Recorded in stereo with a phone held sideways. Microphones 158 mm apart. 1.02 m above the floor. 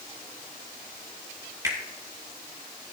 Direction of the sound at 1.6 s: 20° right (ahead or behind).